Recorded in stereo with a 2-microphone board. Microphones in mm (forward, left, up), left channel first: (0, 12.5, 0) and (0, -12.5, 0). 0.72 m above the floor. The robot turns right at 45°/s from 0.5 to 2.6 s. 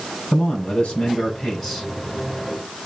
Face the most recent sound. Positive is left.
turn(degrees=-150)